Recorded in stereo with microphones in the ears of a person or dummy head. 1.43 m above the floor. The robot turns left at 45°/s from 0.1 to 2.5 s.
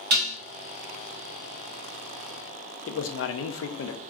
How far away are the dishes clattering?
About 1.0 m.